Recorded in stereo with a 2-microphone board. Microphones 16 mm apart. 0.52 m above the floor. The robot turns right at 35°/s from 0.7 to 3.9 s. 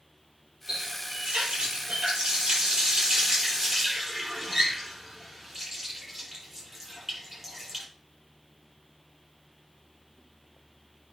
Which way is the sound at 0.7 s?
55° right (ahead or behind).